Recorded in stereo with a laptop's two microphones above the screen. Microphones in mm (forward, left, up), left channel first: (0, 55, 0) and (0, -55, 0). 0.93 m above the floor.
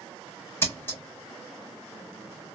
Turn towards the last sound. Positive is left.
turn(degrees=20)  # may be behind; listen again after turning